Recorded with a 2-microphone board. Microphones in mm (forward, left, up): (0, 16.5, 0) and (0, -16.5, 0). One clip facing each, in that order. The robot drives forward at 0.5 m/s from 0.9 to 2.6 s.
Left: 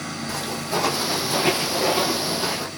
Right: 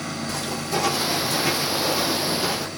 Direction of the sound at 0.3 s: 15° left (ahead or behind).